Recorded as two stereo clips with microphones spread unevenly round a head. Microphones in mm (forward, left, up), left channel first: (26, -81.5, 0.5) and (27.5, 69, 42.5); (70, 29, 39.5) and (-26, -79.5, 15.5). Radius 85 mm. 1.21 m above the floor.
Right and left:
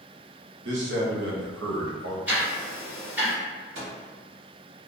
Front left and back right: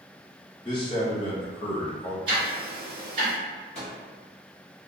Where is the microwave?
105° left, 1.6 m.